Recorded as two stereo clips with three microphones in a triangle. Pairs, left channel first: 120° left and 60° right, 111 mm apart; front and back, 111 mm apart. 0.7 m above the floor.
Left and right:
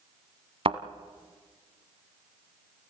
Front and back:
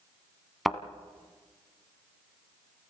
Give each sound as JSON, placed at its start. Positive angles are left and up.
{"t": 0.7, "sound": "a thud", "azimuth_deg": -90, "distance_m": 1.3}